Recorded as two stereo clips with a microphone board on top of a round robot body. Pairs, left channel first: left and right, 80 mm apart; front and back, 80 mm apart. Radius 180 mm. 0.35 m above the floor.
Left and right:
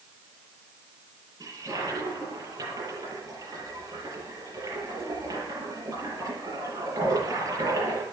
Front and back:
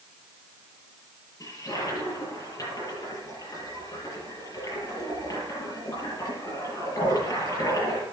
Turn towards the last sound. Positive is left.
turn(degrees=-45)